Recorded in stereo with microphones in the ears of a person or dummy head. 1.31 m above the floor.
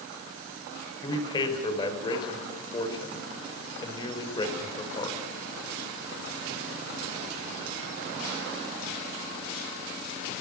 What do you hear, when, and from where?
1.0 s a man speaking: 25° left (ahead or behind), 5 m